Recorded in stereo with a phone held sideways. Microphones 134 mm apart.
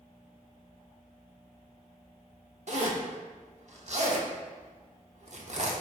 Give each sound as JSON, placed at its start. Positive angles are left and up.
{"t": 2.7, "sound": "a zipper", "side_deg": -55, "distance_m": 0.7}